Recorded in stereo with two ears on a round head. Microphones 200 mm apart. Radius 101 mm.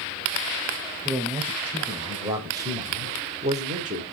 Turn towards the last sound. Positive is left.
turn(degrees=-35)  # may be behind; listen again after turning